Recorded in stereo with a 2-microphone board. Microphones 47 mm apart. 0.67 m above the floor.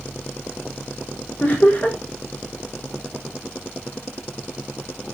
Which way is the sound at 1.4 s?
35° left (ahead or behind).